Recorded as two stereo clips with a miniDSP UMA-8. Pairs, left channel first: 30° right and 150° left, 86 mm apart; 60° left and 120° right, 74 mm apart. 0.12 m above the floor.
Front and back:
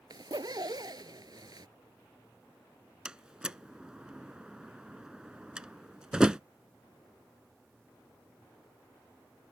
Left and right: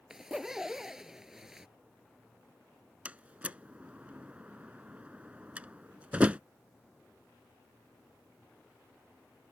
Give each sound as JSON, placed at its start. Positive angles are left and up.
{"t": 0.1, "sound": "a zipper", "azimuth_deg": 160}
{"t": 3.0, "sound": "a door slam", "azimuth_deg": -145}